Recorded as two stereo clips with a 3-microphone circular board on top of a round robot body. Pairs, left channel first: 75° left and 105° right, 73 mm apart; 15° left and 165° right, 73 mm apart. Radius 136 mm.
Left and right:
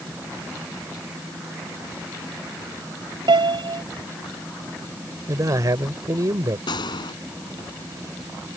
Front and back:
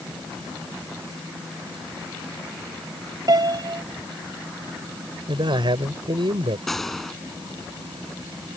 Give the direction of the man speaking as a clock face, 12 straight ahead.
5 o'clock.